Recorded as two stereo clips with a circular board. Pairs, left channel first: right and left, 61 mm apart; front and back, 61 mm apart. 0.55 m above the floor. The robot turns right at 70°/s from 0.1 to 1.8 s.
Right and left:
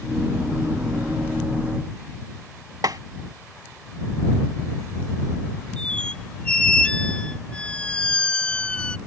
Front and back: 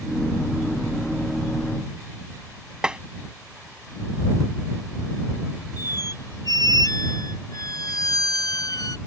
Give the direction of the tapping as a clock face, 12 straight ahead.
9 o'clock.